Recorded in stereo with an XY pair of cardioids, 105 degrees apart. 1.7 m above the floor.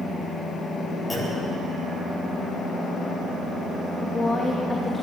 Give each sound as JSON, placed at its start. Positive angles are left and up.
{"t": 1.1, "sound": "a clunk", "azimuth_deg": 25, "distance_m": 9.5}
{"t": 4.0, "sound": "a woman speaking", "azimuth_deg": 30, "distance_m": 2.5}